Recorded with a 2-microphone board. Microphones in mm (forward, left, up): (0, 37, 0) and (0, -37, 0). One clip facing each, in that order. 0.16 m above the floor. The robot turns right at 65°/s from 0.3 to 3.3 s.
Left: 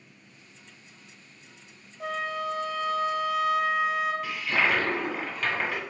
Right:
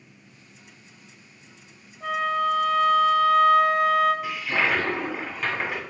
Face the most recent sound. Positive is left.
turn(degrees=-10)  # may be behind; listen again after turning